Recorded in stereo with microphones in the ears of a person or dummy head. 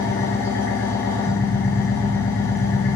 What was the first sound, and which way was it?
An engine running, 15° left (ahead or behind).